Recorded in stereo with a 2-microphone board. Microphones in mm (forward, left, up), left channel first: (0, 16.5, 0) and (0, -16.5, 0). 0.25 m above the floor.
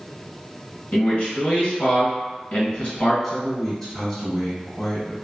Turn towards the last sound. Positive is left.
turn(degrees=15)  # may be behind; listen again after turning